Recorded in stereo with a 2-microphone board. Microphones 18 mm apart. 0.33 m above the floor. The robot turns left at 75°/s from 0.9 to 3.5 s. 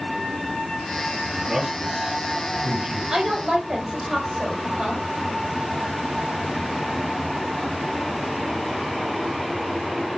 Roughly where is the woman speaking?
Right.